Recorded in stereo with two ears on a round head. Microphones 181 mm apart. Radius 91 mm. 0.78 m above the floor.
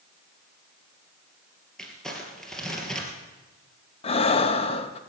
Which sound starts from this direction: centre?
Crumpling, at 1.8 s.